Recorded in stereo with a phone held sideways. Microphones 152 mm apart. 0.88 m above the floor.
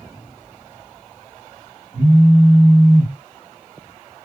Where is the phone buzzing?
70° right (ahead or behind), 1.4 m.